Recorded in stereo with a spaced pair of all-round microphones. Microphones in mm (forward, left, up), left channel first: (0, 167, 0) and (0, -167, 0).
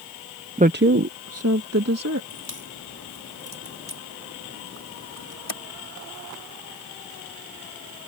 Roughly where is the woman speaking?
Centre.